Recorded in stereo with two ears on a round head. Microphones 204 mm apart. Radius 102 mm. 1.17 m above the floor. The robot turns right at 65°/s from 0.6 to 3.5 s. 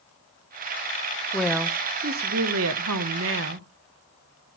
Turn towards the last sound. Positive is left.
turn(degrees=-50)